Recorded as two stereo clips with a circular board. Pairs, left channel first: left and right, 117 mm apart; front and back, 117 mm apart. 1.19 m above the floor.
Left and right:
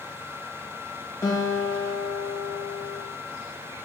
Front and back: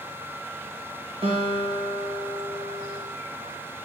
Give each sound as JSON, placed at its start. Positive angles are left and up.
{"t": 1.2, "sound": "a guitar", "azimuth_deg": 150, "distance_m": 2.5}